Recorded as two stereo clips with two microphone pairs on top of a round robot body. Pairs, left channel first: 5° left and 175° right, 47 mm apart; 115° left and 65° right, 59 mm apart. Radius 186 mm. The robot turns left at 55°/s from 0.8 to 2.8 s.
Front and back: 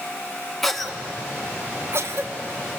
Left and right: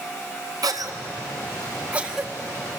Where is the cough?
75° right, 2.0 m; by 2.8 s 175° left, 2.0 m.